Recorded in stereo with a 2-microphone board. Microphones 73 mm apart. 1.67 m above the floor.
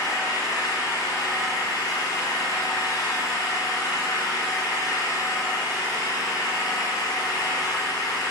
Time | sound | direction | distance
0.0 | an engine running | 65° left (ahead or behind) | 6.5 m